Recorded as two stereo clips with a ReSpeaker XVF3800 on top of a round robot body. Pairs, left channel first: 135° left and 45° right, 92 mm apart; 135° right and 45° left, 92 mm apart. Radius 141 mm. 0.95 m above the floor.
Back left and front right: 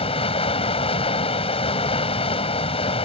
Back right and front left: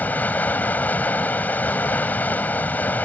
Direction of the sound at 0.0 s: 150° left.